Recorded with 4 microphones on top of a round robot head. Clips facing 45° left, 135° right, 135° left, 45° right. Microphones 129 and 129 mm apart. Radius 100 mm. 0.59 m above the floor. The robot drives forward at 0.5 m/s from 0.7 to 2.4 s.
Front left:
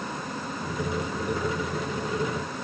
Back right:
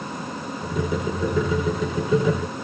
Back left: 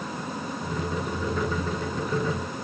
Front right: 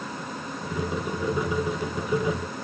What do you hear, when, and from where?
Only background noise.